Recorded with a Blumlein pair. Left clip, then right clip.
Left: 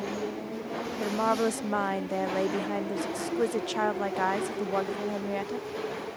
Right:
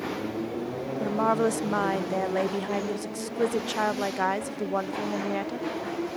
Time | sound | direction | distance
1.0 | a woman speaking | straight ahead | ?